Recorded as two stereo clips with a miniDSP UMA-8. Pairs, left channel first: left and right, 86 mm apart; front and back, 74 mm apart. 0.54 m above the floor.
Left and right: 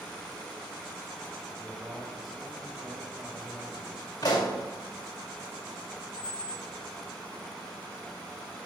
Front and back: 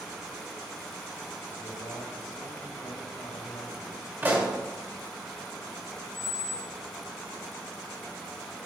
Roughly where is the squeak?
Ahead left.